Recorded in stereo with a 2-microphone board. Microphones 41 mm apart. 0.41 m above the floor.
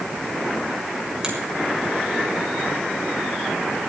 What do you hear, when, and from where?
1.2 s a finger snap: 15° right (ahead or behind), 4 m